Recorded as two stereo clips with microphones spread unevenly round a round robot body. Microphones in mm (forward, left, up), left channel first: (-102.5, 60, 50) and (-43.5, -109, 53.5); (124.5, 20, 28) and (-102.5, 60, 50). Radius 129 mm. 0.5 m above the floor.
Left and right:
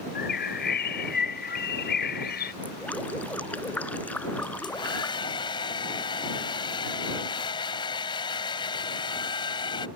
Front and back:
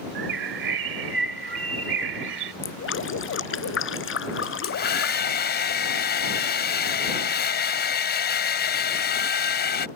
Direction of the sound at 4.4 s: 40° left.